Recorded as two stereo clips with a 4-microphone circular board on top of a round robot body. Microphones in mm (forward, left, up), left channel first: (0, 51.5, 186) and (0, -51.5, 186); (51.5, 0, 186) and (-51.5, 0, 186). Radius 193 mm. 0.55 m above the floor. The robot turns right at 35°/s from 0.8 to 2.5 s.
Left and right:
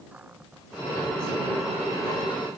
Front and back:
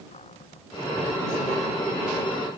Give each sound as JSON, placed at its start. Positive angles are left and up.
{"t": 0.1, "sound": "a cupboard door", "azimuth_deg": -10}